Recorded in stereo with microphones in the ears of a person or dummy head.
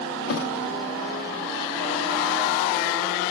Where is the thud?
60° left (ahead or behind), 1.4 m.